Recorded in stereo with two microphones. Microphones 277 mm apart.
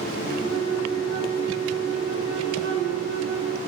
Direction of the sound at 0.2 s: 40° right (ahead or behind).